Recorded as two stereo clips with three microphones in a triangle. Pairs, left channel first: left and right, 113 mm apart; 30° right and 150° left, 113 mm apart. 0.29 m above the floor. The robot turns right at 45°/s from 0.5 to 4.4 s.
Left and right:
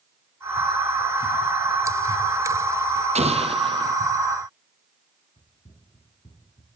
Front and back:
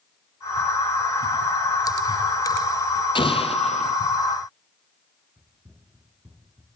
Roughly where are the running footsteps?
Left.